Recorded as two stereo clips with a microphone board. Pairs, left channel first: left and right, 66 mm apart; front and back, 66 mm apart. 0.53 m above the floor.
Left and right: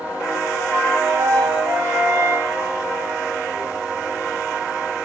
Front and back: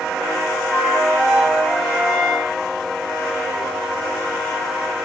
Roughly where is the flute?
Right.